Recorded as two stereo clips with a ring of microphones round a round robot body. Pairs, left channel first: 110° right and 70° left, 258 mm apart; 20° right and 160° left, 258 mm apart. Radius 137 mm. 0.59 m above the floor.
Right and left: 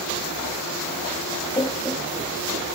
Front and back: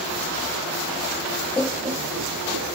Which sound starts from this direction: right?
Laughter, at 1.6 s.